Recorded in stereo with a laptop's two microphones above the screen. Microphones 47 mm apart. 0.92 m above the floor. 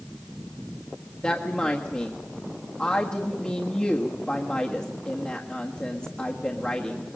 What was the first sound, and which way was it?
A woman speaking, 25° left (ahead or behind).